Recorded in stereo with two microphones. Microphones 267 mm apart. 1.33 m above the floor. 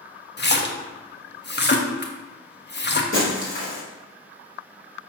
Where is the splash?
40° left (ahead or behind), 0.8 m.